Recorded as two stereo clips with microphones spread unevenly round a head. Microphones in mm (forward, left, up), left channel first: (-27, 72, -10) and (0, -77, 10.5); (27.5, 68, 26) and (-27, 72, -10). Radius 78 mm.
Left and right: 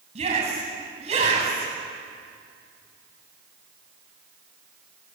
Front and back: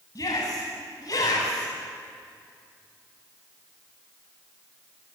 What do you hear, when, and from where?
0.1 s a shout: 30° right, 9 m